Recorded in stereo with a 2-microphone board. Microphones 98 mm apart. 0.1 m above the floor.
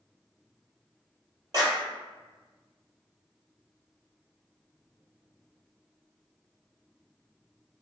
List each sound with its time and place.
1.5 s a clap: 40° right (ahead or behind), 1.8 m